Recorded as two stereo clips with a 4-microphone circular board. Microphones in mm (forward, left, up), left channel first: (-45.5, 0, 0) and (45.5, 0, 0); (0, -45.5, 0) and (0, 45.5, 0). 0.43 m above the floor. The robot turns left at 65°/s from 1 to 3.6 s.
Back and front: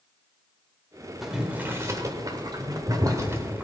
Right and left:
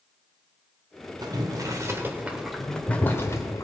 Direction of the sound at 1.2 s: 90° left.